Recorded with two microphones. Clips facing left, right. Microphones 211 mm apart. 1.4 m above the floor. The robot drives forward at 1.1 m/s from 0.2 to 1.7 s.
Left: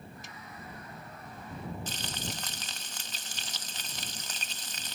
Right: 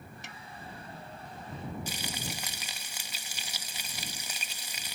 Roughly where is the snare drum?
Right.